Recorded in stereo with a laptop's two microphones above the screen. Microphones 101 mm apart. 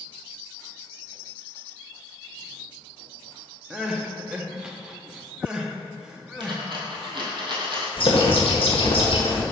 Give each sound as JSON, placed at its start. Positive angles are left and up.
{"t": 3.7, "sound": "crying", "side_deg": -10, "distance_m": 0.6}
{"t": 6.4, "sound": "a dropped coin", "side_deg": -50, "distance_m": 2.0}
{"t": 8.0, "sound": "a bird", "side_deg": 60, "distance_m": 1.4}